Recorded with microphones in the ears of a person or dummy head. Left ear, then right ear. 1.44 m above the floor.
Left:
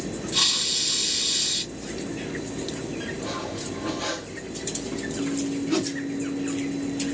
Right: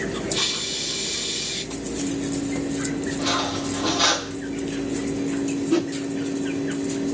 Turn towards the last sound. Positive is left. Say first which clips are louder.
# right 3 dB
turn(degrees=10)  # may be behind; listen again after turning